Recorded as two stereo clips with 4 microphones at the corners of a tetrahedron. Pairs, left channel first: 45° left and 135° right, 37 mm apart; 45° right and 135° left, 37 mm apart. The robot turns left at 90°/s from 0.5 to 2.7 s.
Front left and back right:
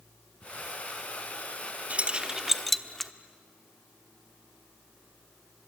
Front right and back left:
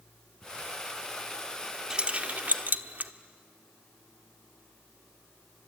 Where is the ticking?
15° right, 8.5 m.